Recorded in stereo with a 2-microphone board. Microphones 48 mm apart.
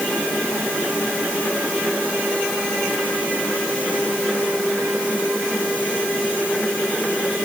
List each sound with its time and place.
Only background noise.